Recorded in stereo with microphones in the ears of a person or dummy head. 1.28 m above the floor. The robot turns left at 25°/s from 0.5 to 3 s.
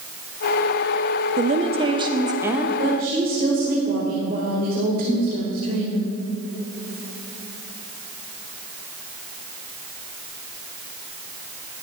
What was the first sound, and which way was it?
A woman speaking, 130° right.